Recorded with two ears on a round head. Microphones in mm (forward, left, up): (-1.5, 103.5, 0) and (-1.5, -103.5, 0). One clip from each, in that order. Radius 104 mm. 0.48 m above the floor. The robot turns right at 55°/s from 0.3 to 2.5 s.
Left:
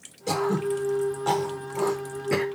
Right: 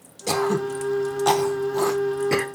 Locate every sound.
0.3 s throat clearing: 25° right (ahead or behind), 0.9 m; by 2.5 s 15° right (ahead or behind), 0.9 m